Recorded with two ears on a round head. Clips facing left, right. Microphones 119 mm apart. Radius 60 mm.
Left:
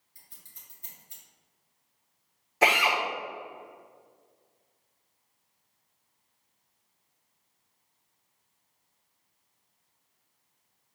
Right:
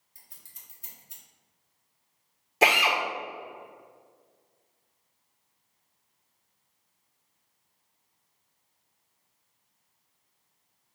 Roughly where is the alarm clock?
I don't hear an alarm clock.